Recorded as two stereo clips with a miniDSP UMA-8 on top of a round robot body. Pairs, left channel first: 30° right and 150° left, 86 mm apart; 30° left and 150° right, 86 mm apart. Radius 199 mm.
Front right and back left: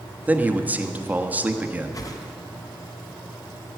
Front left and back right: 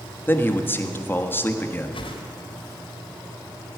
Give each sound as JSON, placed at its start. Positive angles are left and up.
{"t": 0.3, "sound": "a man speaking", "azimuth_deg": 85, "distance_m": 1.4}
{"t": 1.9, "sound": "a whoosh", "azimuth_deg": 20, "distance_m": 1.4}